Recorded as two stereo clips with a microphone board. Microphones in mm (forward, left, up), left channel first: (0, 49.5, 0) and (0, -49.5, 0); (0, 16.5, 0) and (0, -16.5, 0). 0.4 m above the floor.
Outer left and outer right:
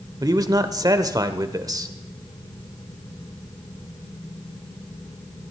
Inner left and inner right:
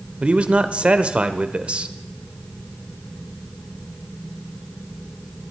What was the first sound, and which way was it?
A man speaking, 35° right (ahead or behind).